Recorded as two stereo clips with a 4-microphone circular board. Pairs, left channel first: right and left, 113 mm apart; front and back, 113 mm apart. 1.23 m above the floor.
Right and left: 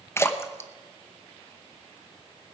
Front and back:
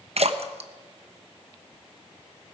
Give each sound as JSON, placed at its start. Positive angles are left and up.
{"t": 0.2, "sound": "a splash", "azimuth_deg": -155, "distance_m": 0.7}